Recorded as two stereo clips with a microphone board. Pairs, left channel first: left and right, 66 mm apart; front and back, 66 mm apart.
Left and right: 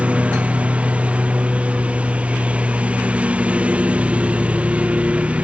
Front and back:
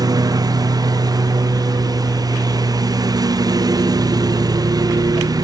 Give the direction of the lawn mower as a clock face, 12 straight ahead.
5 o'clock.